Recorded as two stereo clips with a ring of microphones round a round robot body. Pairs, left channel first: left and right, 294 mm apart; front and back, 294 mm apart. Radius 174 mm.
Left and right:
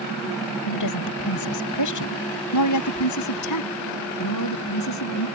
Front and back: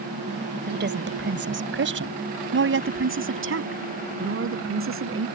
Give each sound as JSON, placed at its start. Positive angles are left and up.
{"t": 0.7, "sound": "a woman speaking", "azimuth_deg": 125}